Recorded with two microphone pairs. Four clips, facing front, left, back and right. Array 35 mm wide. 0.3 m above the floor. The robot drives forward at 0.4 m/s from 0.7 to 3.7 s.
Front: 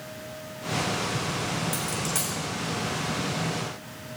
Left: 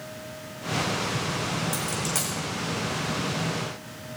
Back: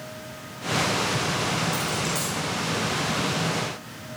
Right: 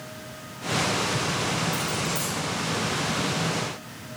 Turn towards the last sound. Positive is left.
turn(degrees=65)